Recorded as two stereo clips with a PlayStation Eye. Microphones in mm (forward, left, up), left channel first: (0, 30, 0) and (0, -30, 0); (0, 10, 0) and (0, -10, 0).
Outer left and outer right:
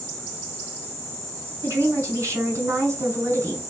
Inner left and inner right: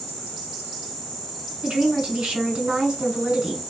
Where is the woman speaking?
55° right (ahead or behind), 2 m.